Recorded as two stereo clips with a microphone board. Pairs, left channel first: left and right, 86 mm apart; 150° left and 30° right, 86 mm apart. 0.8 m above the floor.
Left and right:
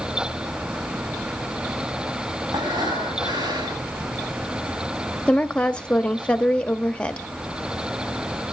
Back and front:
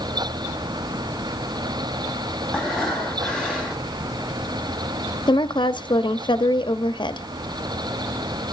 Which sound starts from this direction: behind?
A woman speaking, at 5.3 s.